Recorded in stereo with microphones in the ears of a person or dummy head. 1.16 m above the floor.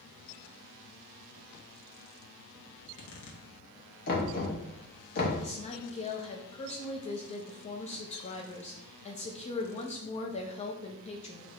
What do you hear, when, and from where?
2.8 s a zipper: 55° left (ahead or behind), 1.1 m
4.1 s knocking: 50° left (ahead or behind), 1.0 m
5.4 s a woman speaking: 30° left (ahead or behind), 0.7 m